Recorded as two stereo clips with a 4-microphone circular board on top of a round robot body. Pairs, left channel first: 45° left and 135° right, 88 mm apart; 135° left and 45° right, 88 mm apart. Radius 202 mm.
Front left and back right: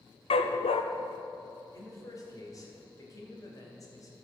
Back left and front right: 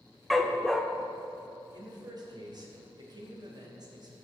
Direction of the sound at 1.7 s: 5° right.